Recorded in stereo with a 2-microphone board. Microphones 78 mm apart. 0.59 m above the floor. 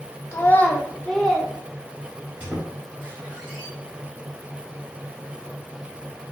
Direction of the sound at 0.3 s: 35° left (ahead or behind).